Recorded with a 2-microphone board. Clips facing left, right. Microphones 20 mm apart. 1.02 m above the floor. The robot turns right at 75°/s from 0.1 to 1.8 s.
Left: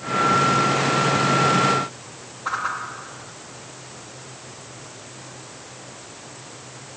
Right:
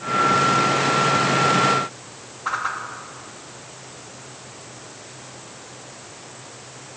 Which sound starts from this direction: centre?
A whoosh, at 2.5 s.